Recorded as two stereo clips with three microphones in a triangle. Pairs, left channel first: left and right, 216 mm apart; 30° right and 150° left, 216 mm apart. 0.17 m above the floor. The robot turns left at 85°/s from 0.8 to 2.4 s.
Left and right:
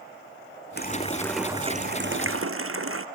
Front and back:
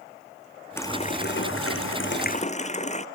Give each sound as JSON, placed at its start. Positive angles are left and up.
{"t": 0.8, "sound": "a running tap", "azimuth_deg": 50}